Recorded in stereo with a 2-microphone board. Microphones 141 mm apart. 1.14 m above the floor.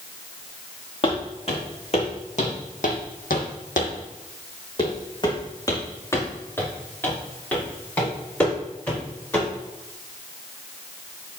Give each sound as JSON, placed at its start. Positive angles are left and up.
{"t": 1.0, "sound": "footsteps", "side_deg": 40, "distance_m": 5.0}